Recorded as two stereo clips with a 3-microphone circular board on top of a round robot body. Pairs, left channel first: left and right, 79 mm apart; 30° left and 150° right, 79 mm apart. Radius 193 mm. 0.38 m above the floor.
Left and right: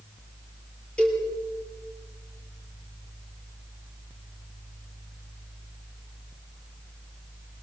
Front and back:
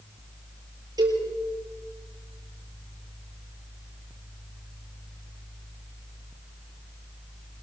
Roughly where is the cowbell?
Behind.